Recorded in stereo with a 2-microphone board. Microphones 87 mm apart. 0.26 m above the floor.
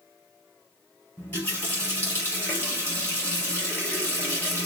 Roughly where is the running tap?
Left.